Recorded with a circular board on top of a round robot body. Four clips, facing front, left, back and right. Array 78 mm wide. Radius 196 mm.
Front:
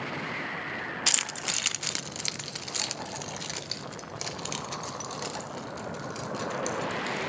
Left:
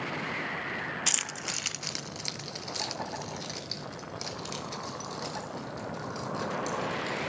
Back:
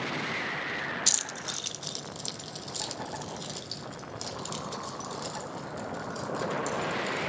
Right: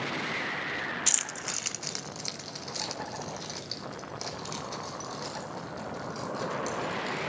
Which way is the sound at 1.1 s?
15° left.